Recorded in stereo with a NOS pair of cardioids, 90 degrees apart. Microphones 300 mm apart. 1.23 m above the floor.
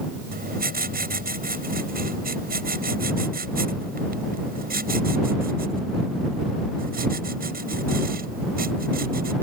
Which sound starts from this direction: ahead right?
Writing, at 0.3 s.